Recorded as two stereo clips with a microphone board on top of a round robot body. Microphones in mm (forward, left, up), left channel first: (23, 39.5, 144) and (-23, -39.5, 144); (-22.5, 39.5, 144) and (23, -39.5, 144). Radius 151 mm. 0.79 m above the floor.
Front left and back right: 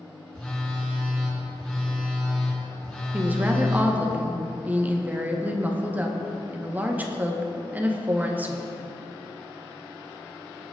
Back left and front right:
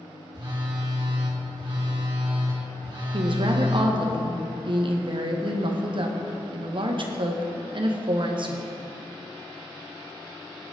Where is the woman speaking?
50° right, 1.9 m.